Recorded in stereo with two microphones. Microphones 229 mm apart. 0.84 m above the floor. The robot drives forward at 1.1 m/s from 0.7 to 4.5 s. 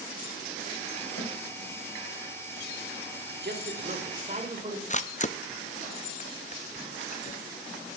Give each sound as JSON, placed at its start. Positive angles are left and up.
{"t": 1.2, "sound": "a snare drum", "side_deg": 60, "distance_m": 4.5}
{"t": 3.4, "sound": "a man speaking", "side_deg": -50, "distance_m": 2.0}
{"t": 4.9, "sound": "a camera shutter", "side_deg": 30, "distance_m": 0.5}